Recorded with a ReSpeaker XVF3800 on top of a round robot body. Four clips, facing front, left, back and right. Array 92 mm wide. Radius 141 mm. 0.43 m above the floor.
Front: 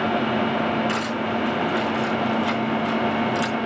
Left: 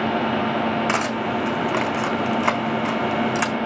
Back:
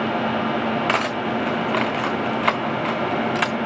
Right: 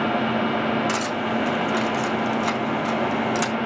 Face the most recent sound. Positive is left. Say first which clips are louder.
# left 2 dB, back 2 dB
turn(degrees=145)